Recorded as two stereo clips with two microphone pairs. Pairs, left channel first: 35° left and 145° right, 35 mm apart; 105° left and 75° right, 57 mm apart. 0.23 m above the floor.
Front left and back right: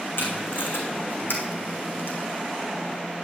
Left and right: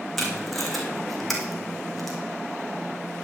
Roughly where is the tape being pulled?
Ahead.